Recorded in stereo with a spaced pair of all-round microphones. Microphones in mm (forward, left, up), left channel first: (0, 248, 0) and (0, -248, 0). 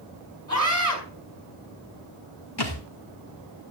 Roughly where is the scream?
Right.